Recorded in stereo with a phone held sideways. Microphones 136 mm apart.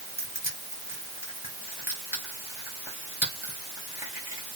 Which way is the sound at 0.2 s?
20° right (ahead or behind).